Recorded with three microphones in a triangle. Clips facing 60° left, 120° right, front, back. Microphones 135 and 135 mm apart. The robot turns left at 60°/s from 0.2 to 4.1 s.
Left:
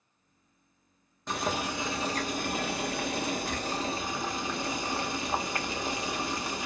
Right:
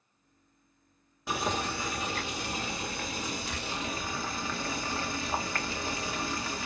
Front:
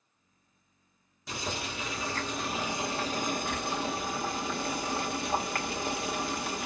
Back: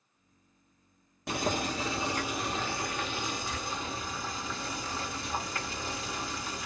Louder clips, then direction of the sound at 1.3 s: Even, back 6 dB; 160° left.